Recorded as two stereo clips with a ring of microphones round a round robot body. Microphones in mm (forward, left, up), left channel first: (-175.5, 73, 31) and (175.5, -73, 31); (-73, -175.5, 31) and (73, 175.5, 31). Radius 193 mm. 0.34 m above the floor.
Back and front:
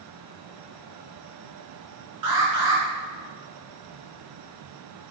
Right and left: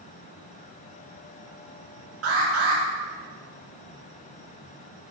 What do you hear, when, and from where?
2.2 s an alarm: 15° left, 3 m